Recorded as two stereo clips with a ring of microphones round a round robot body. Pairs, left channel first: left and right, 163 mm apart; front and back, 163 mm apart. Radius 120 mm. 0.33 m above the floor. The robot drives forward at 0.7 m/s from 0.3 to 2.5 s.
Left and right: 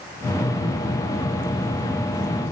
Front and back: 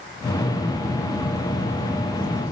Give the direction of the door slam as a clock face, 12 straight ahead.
No door slam in this recording.